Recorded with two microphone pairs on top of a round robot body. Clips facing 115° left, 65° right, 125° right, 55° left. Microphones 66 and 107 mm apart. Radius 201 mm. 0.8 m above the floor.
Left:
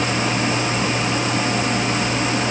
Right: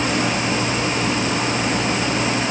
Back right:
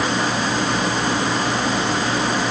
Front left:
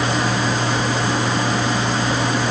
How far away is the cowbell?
No cowbell in this recording.